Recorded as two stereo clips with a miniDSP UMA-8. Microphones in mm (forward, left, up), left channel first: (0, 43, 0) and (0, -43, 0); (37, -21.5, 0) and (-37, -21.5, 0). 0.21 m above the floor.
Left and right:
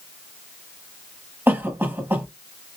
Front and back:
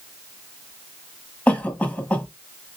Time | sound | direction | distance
1.5 | a cough | 50° right | 1.1 m